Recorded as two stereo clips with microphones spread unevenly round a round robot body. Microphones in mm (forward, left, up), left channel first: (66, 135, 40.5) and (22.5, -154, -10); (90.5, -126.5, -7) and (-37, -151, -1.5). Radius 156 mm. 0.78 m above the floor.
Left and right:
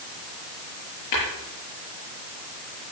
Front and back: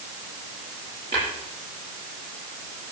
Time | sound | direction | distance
1.1 | tapping | 115° left | 7 m